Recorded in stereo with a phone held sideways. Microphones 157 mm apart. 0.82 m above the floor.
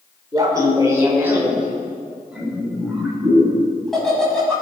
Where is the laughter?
25° right (ahead or behind), 3 m; by 4.5 s 5° left (ahead or behind), 6.5 m.